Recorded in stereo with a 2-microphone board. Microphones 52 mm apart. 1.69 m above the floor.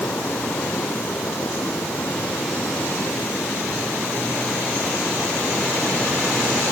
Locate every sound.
Only background noise.